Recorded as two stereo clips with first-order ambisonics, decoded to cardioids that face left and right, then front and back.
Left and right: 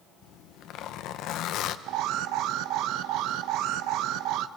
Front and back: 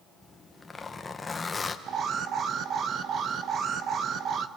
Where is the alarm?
120° right, 0.8 m.